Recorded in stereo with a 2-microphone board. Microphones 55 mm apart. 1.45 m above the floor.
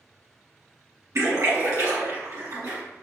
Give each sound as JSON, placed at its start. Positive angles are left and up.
{"t": 1.1, "sound": "a splash", "side_deg": -70, "distance_m": 1.9}